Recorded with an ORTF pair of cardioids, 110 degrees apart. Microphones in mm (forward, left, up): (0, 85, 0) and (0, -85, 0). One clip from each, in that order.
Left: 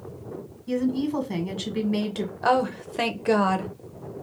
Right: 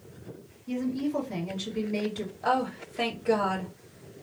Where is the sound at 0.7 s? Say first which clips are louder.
Left 4 dB; 50° left, 1.4 m.